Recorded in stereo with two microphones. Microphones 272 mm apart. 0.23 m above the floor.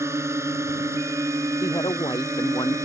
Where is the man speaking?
15° left (ahead or behind).